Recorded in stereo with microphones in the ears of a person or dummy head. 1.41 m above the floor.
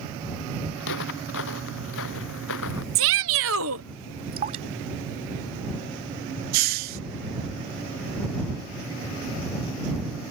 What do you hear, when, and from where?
0.8 s footsteps: 70° left (ahead or behind); by 2.9 s 80° left
3.0 s a shout: 70° right (ahead or behind)
4.3 s dripping: 40° right (ahead or behind)
6.5 s a hiss: 45° right (ahead or behind)